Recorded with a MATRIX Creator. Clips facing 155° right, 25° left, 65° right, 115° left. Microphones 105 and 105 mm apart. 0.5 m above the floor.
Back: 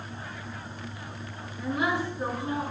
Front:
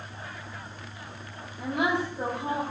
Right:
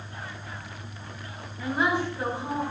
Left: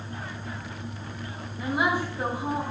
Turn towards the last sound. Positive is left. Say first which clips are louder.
# front 1 dB, even
turn(degrees=35)